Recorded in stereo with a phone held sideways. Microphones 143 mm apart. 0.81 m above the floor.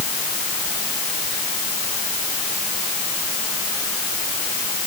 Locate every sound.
Only background noise.